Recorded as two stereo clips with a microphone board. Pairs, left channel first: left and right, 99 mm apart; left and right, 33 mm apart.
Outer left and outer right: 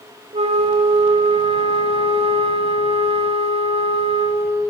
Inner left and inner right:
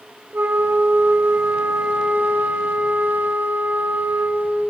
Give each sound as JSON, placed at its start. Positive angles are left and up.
{"t": 0.3, "sound": "a flute", "side_deg": -85, "distance_m": 2.5}